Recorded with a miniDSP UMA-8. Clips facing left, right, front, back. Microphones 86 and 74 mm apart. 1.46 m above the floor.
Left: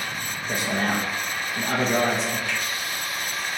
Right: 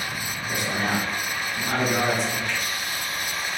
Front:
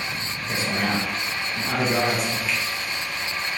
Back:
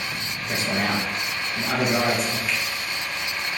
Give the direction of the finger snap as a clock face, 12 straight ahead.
9 o'clock.